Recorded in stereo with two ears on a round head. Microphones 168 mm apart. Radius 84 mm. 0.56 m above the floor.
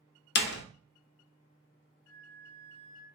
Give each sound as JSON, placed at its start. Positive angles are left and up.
{"t": 0.3, "sound": "a door slam", "side_deg": 60, "distance_m": 0.5}
{"t": 2.1, "sound": "a flute", "side_deg": -50, "distance_m": 1.8}